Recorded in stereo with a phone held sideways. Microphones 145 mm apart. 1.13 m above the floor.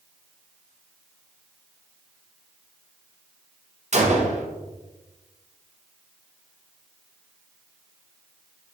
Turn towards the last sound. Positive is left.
turn(degrees=-50)  # may be behind; listen again after turning